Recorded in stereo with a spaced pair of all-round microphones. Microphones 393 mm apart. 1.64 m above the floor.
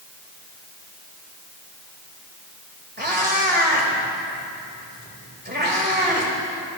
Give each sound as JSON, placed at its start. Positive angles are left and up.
{"t": 3.0, "sound": "a cat meowing", "side_deg": -25, "distance_m": 2.0}